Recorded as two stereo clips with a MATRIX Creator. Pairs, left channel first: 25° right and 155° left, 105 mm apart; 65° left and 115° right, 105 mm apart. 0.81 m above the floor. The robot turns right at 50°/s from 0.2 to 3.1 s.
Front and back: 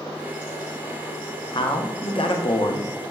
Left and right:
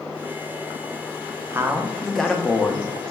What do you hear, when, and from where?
1.5 s a man speaking: 50° right, 0.6 m; by 2.9 s 15° left, 0.6 m